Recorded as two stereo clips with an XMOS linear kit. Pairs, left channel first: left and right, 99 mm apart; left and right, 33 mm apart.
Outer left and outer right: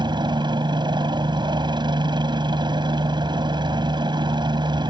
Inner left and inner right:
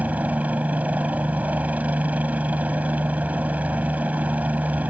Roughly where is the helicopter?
Right.